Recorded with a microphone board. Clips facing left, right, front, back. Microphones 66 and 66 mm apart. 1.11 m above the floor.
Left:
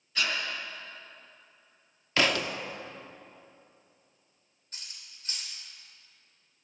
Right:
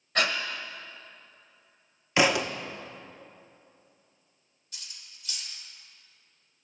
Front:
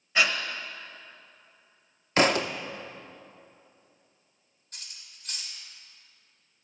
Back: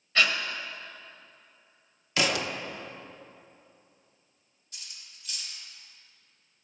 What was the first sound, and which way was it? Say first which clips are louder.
Breathing: right 4 dB, even; 70° right.